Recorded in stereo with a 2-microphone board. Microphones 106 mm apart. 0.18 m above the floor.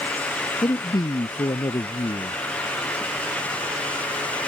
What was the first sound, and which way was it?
A man speaking, 40° left (ahead or behind).